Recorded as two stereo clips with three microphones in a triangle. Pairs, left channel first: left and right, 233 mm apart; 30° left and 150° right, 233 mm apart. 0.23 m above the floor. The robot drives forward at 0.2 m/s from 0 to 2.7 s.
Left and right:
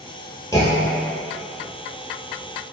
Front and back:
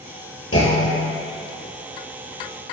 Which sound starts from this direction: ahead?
A clunk, at 0.5 s.